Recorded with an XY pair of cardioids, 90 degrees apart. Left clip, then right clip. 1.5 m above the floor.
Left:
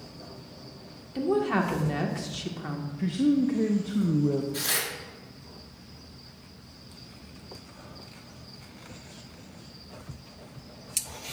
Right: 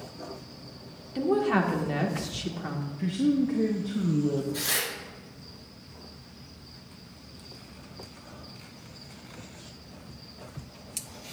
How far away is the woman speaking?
About 1.7 m.